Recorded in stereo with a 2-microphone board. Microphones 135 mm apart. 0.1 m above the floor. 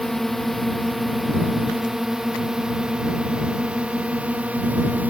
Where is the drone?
Centre (ahead or behind); by 5.1 s 10° right (ahead or behind).